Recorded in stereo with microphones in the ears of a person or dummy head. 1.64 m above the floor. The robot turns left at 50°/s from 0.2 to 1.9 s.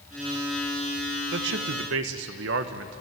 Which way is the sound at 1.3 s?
75° right (ahead or behind).